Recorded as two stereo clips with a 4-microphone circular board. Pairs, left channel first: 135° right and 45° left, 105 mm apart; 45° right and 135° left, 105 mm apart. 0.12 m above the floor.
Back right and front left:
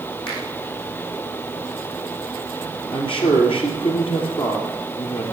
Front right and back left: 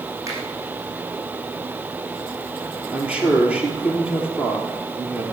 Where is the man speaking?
150° right, 3 m.